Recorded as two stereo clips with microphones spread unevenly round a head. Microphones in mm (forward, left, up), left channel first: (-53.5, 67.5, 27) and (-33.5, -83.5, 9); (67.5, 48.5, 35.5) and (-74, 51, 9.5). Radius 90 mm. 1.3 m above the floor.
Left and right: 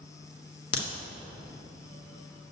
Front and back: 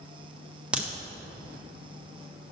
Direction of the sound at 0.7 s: 95° left.